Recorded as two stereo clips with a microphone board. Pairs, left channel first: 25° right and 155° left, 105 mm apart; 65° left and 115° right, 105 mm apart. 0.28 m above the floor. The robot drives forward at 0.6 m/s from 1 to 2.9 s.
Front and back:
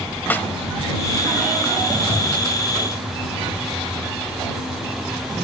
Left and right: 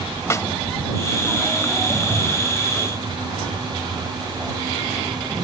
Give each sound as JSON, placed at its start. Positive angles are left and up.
{"t": 0.3, "sound": "a snare drum", "azimuth_deg": 35}